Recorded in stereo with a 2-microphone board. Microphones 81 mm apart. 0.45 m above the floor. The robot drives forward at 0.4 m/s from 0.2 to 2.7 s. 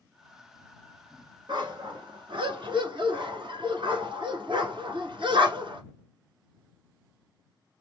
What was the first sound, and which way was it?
A dog barking, 70° right (ahead or behind).